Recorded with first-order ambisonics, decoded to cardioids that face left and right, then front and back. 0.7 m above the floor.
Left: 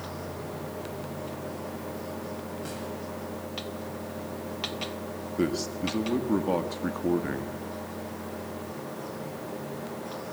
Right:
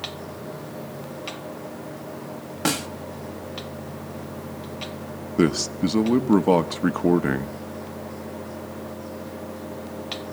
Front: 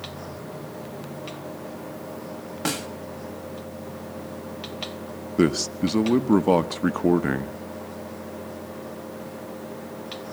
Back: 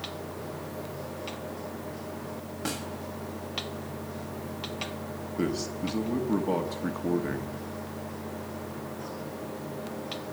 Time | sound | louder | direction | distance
2.6 | a snare drum | right 12 dB, front 7 dB | 65° right | 1.0 m
5.4 | a man speaking | right 7 dB, front 9 dB | 40° right | 1.0 m